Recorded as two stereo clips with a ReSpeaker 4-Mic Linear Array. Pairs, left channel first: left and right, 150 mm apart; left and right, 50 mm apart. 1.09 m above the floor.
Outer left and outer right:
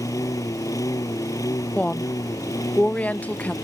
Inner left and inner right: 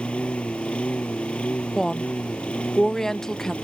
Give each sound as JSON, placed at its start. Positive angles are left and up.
{"t": 0.0, "sound": "a lawn mower", "side_deg": 20}
{"t": 1.8, "sound": "a woman speaking", "side_deg": 10}